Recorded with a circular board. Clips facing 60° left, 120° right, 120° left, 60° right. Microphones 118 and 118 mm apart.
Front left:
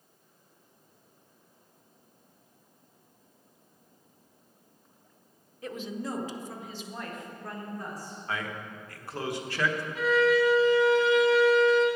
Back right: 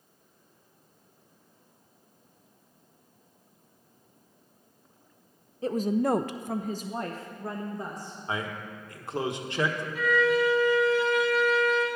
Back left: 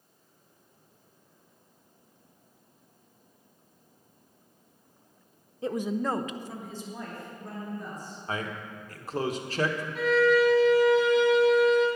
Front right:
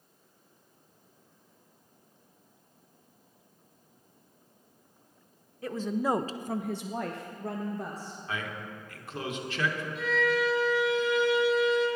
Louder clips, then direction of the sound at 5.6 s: Back right 10 dB, back left 1 dB; 175° right.